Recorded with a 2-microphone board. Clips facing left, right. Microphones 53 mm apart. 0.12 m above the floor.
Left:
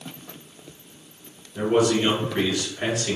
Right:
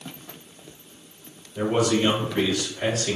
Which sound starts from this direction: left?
A man speaking, at 1.6 s.